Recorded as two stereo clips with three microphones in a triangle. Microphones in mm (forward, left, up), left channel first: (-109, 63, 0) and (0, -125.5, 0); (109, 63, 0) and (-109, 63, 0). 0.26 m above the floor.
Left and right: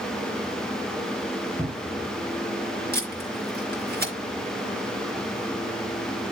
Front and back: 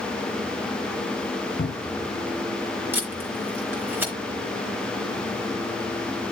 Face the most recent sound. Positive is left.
turn(degrees=-100)